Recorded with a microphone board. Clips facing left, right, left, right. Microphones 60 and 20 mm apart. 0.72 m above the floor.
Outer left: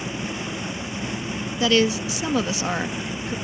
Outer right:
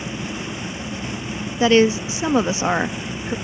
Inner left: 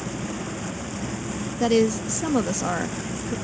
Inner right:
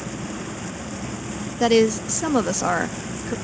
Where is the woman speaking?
30° right (ahead or behind).